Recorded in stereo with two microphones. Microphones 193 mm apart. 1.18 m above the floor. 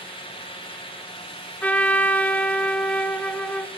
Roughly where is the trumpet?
Centre.